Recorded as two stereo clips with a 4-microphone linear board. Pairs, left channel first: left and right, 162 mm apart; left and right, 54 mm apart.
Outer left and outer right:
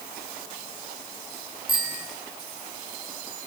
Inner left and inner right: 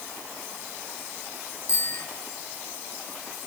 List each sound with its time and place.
1.7 s a bicycle bell: 60° left (ahead or behind), 8 m